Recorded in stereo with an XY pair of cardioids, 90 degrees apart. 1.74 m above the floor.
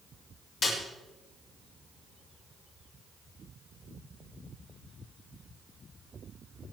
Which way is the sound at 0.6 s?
60° left.